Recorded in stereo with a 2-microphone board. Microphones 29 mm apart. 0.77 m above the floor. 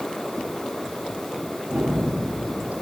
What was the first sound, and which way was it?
A gunshot, 55° right (ahead or behind).